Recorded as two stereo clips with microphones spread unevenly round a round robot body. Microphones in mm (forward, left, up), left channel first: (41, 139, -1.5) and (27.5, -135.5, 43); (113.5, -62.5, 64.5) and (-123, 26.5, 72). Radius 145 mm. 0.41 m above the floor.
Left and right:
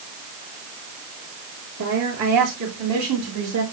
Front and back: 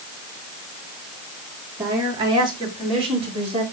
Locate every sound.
1.8 s a woman speaking: 120° right, 7.5 m; by 3.6 s 135° right, 7 m